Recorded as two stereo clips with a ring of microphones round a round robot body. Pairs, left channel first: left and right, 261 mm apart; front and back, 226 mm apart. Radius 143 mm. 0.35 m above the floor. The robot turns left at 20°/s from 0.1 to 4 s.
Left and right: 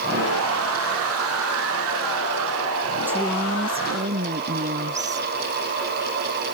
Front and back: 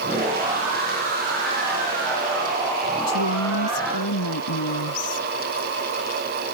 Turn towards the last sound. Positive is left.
turn(degrees=-25)